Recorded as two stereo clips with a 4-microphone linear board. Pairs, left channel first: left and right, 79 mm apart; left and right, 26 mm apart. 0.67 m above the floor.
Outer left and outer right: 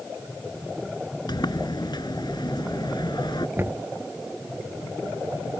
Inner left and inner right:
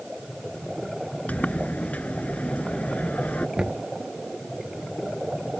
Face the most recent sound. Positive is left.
turn(degrees=-30)  # may be behind; listen again after turning